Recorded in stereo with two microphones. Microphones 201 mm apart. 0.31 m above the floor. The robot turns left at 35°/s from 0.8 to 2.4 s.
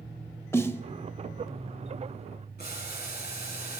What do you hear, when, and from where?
0.5 s a snare drum: 15° left (ahead or behind), 0.6 m
2.6 s boiling: 55° left (ahead or behind), 3.5 m